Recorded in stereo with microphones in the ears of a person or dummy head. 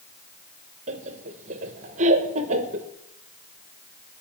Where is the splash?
I don't hear a splash.